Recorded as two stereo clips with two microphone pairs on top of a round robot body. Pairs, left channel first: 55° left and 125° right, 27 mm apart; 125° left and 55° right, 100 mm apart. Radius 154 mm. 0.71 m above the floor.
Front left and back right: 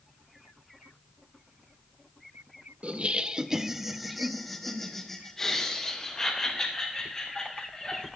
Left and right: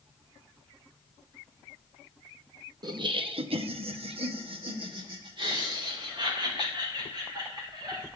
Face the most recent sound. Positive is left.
turn(degrees=-10)